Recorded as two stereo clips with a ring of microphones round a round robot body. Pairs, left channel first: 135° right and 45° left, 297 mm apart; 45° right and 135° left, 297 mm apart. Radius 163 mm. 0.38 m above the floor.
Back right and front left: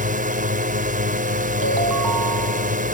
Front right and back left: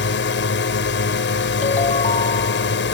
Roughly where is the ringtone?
Ahead left.